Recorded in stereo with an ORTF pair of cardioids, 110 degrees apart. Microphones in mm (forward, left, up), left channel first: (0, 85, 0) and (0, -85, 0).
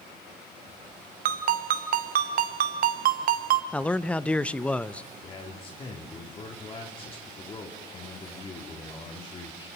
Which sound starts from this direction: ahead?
A man speaking, at 3.7 s.